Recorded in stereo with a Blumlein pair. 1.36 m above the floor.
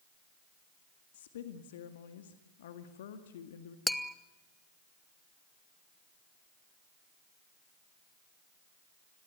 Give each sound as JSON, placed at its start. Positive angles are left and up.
{"t": 1.1, "sound": "a woman speaking", "azimuth_deg": 60, "distance_m": 1.9}
{"t": 3.9, "sound": "tapping", "azimuth_deg": 5, "distance_m": 1.0}